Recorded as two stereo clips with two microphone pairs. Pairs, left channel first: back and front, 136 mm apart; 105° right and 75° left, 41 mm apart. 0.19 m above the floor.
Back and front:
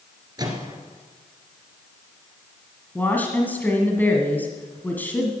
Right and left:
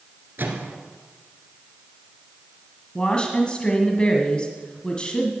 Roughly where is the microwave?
Ahead left.